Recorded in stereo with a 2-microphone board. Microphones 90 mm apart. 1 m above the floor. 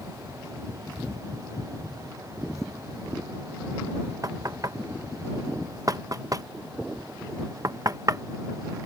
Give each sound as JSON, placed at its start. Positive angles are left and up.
{"t": 4.2, "sound": "knocking", "side_deg": -40}